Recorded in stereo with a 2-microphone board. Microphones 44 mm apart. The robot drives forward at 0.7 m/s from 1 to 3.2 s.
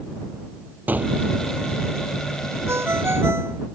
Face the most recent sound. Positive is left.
turn(degrees=-65)  # may be behind; listen again after turning